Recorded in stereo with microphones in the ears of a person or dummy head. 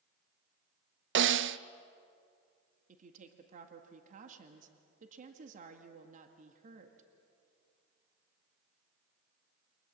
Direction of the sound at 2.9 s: 40° right (ahead or behind).